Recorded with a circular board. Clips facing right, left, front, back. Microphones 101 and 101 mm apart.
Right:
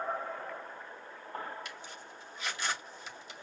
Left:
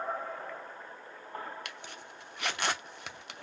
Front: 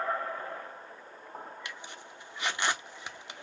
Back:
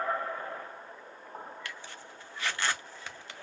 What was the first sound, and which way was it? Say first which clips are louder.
A zipper: left 1 dB, even; 70° left.